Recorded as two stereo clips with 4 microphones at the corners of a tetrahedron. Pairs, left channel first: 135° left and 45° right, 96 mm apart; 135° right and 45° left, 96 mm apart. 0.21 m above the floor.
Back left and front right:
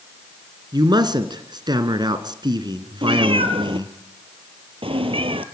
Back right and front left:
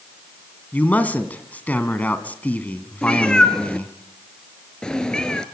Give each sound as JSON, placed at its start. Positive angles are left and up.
{"t": 0.7, "sound": "a man speaking", "azimuth_deg": -65, "distance_m": 2.0}
{"t": 3.0, "sound": "a cat meowing", "azimuth_deg": -55, "distance_m": 1.4}